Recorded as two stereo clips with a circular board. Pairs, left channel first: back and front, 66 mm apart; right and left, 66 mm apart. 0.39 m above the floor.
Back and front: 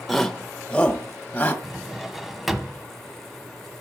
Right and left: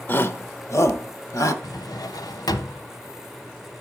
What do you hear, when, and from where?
0.1 s a shout: 95° right, 0.8 m; by 1.5 s 115° right, 1.9 m
1.6 s a drawer: 85° right, 1.0 m